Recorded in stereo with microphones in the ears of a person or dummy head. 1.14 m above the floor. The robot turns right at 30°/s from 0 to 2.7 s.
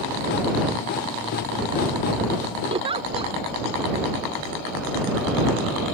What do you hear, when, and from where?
2.7 s a giggle: 30° right (ahead or behind)